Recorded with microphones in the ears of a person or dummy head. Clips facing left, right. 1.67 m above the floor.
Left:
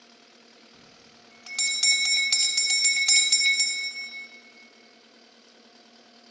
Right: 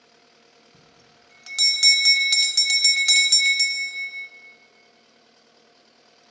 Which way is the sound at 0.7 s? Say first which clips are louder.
Left 1 dB; 20° right (ahead or behind).